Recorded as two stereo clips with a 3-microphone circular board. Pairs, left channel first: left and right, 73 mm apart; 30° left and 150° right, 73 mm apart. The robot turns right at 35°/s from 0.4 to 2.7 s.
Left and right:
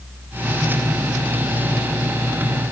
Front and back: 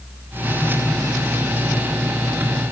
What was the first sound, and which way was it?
Only background noise.